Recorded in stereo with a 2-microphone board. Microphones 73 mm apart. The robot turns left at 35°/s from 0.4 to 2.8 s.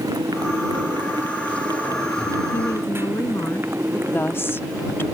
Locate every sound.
0.0 s a motorcycle: 60° right; by 5.2 s 145° right
2.5 s a woman speaking: 35° left (ahead or behind); by 4.0 s 45° left (ahead or behind)
4.1 s a woman speaking: 35° left (ahead or behind)